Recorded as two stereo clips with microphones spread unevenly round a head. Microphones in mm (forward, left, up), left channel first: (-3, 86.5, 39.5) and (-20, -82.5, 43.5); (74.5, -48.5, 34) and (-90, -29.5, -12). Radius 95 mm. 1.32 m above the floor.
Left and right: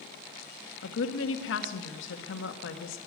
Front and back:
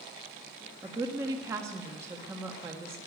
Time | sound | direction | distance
0.8 | a woman speaking | 95° left | 1.6 m